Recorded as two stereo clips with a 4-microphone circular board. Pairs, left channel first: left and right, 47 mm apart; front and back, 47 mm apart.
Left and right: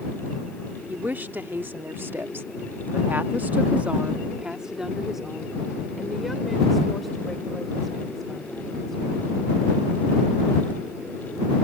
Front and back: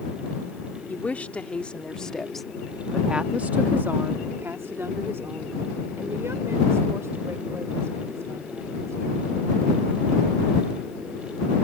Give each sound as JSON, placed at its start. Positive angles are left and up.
{"t": 0.9, "sound": "a woman speaking", "azimuth_deg": -50}